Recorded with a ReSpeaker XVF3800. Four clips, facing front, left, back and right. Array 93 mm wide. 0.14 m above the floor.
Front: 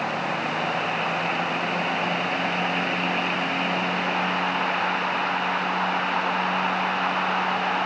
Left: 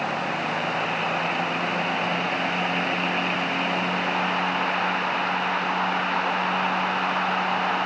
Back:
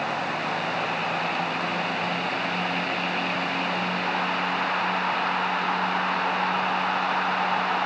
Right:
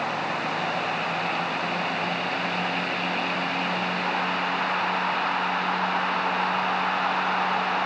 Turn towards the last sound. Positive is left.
No sound to turn to.